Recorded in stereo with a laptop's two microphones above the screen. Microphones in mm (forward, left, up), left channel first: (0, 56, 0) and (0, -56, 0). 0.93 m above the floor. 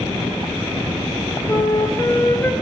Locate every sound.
1.5 s a flute: 20° left (ahead or behind), 2 m